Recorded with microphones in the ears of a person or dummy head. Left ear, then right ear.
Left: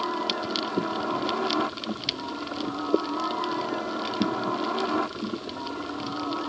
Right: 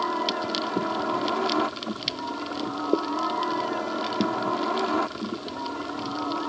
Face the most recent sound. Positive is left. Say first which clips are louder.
# right 2 dB
turn(degrees=-10)  # may be behind; listen again after turning